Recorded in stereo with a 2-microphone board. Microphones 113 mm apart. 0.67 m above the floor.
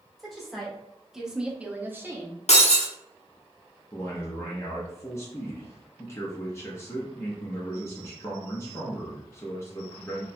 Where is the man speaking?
20° left (ahead or behind), 0.8 m.